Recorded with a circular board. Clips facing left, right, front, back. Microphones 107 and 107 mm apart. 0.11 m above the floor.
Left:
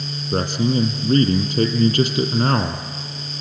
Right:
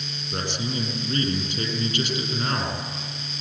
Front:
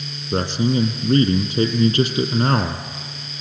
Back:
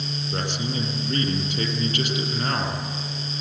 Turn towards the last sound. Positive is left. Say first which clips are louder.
# left 10 dB, front 10 dB
turn(degrees=55)